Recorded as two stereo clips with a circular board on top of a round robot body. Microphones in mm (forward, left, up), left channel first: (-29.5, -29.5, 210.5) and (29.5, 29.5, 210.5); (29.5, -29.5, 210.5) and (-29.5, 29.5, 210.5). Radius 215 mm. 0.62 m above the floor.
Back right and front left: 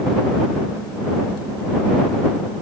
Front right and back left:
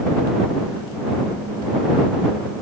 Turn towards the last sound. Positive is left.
No sound to turn to.